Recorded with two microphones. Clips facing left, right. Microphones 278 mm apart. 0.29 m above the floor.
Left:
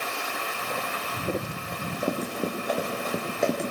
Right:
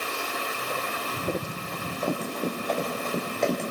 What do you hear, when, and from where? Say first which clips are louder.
1.7 s running footsteps: left 1 dB; 15° left (ahead or behind), 5.5 m; by 3.7 s 5° left (ahead or behind), 5.5 m